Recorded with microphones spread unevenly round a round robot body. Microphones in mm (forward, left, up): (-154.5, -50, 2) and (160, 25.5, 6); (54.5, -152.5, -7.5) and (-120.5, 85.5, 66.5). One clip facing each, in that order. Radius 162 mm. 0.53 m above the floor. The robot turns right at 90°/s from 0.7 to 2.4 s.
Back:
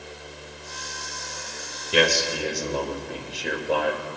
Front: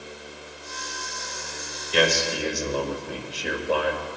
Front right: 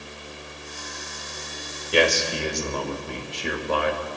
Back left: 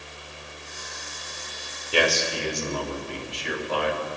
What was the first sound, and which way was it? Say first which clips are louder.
A man speaking: back 1 dB, front right 3 dB; 120° right.